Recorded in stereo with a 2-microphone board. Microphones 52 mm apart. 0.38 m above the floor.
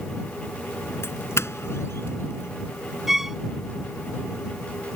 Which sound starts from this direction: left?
A doorbell, at 1.0 s.